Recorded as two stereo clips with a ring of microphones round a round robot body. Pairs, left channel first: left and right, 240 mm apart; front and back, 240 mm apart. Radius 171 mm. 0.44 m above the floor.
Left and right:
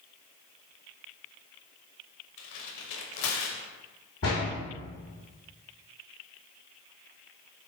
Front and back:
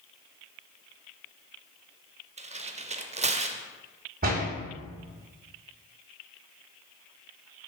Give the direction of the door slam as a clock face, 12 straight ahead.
8 o'clock.